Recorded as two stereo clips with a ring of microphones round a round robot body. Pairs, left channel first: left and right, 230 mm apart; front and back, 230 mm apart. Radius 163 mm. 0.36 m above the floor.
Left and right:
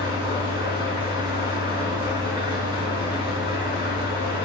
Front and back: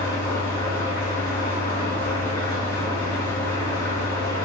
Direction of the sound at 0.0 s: 60° right.